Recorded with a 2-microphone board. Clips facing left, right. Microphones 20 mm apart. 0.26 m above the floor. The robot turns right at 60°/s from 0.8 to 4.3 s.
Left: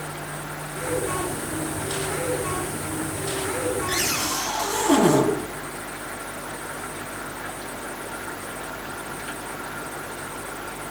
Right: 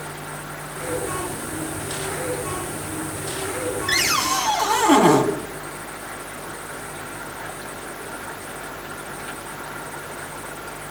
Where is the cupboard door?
55° right (ahead or behind), 2 m.